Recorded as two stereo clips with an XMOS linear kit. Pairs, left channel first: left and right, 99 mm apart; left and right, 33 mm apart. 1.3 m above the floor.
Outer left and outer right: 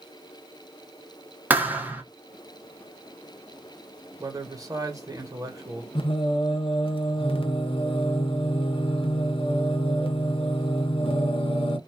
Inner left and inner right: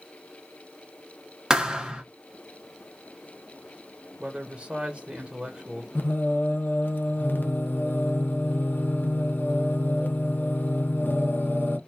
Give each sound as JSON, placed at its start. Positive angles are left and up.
{"t": 1.5, "sound": "a thud", "side_deg": -20, "distance_m": 0.7}
{"t": 4.2, "sound": "a man speaking", "side_deg": -35, "distance_m": 1.4}
{"t": 6.0, "sound": "singing", "side_deg": 65, "distance_m": 0.6}